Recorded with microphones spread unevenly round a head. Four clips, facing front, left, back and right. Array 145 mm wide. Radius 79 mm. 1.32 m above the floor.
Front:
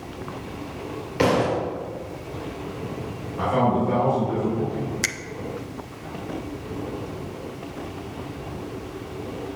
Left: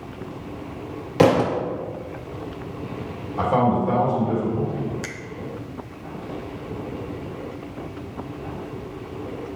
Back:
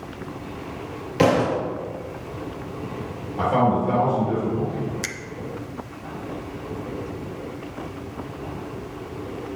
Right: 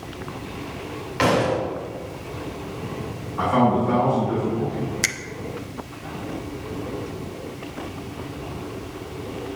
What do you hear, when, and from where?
1.2 s a thud: 95° left, 1.8 m
3.4 s a man speaking: 100° left, 3.5 m
5.0 s a finger snap: 65° right, 0.9 m